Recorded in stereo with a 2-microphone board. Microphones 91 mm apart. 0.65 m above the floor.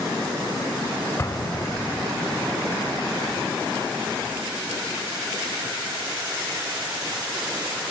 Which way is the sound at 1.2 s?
30° left (ahead or behind).